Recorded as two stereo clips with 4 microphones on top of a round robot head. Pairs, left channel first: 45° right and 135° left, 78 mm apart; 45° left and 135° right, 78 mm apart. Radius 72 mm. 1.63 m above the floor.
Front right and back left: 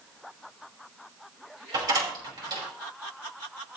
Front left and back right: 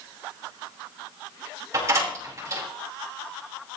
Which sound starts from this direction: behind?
A door slam, at 1.7 s.